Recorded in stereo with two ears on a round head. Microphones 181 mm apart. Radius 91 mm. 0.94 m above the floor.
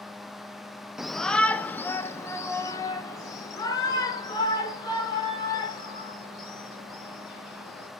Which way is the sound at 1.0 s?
Centre (ahead or behind).